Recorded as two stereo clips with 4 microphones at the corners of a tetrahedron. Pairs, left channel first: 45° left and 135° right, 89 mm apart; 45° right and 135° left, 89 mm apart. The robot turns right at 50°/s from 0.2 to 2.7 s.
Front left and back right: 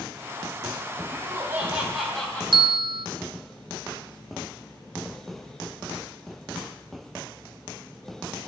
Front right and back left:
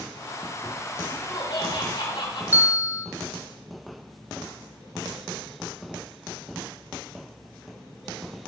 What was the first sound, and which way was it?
Laughter, 90° right.